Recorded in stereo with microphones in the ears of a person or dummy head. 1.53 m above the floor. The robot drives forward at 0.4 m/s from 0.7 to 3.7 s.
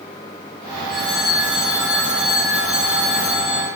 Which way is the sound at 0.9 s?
5° right (ahead or behind).